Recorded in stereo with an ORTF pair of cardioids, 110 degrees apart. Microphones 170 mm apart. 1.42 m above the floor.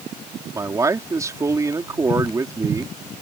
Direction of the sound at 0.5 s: 20° right.